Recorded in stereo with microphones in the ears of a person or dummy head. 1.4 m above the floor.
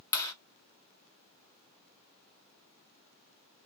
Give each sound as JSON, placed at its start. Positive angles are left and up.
{"t": 0.1, "sound": "a clap", "side_deg": 25, "distance_m": 1.4}